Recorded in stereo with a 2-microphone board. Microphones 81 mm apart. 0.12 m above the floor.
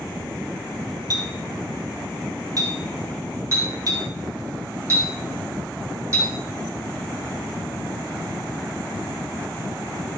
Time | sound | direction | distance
1.1 | a clink | 45° right (ahead or behind) | 1.9 m
3.5 | a clink | 35° right (ahead or behind) | 3.5 m